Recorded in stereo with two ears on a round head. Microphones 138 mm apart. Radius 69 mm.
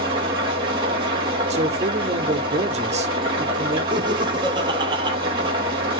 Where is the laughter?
30° right (ahead or behind), 1.1 m.